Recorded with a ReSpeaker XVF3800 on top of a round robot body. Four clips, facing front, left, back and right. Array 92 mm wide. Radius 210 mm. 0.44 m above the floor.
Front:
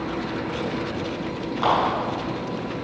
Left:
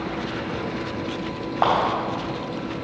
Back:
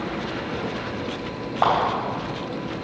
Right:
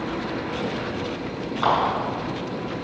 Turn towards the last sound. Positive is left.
turn(degrees=125)